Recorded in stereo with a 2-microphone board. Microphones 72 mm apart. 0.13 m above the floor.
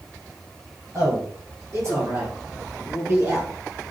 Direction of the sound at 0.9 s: 50° right (ahead or behind).